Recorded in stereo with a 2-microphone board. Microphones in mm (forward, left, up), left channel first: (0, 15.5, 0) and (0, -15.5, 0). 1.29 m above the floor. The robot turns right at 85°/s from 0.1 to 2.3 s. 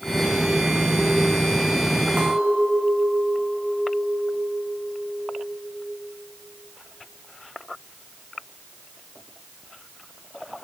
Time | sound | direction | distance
2.2 | a clink | 45° right (ahead or behind) | 2.5 m